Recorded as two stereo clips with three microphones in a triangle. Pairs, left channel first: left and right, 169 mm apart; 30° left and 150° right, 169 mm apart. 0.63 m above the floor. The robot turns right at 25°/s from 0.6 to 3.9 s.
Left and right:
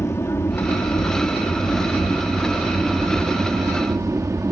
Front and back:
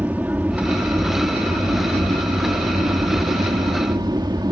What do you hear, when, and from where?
0.0 s an aircraft: 145° left; by 4.5 s 135° right